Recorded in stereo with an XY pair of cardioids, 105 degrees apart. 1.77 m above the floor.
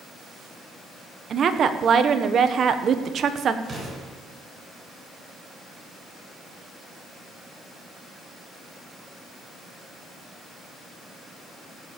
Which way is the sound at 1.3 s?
55° right.